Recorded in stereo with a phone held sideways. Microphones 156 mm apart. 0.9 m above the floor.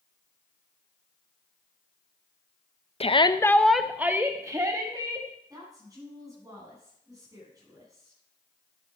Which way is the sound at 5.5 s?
20° right (ahead or behind).